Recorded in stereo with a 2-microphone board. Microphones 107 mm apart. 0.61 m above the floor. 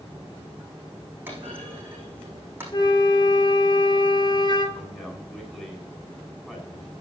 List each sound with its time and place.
1.3 s a clunk: 20° right (ahead or behind), 6 m
2.7 s a flute: 45° left (ahead or behind), 1.6 m
4.8 s a man speaking: 5° left (ahead or behind), 3 m